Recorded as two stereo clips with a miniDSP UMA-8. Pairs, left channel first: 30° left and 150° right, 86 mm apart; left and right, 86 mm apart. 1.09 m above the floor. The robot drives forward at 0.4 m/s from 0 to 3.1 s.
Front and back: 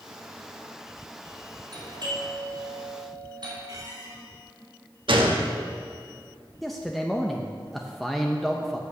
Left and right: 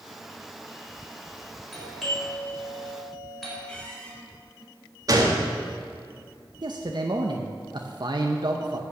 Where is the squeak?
165° left, 2 m.